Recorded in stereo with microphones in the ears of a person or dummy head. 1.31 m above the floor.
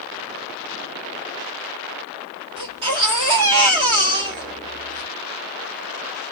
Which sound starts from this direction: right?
A baby crying, at 2.6 s.